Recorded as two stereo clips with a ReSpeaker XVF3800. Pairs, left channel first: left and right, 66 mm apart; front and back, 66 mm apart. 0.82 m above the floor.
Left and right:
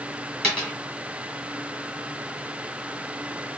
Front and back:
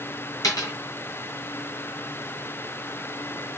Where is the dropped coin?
20° left, 2 m.